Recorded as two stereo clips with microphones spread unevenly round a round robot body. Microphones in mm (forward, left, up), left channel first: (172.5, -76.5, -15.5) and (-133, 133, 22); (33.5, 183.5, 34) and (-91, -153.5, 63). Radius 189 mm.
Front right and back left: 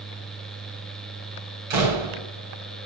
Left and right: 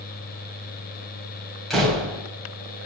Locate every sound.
1.7 s a door slam: 160° left, 4.5 m